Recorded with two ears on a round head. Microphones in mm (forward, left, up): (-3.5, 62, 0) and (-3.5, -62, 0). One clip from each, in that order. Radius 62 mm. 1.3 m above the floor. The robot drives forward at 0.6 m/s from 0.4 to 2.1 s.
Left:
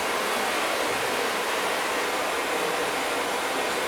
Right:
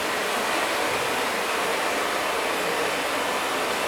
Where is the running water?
20° left (ahead or behind), 1.0 m; by 3.9 s 10° left (ahead or behind), 2.0 m.